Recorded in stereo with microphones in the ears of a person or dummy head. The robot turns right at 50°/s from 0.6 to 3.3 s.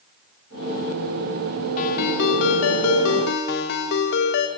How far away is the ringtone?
About 2 m.